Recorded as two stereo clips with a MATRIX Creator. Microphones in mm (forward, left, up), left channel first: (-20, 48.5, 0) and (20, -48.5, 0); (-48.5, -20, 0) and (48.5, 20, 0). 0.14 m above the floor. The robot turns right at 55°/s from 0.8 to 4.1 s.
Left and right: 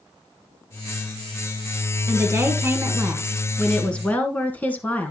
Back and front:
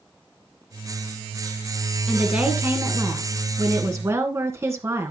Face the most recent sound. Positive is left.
turn(degrees=50)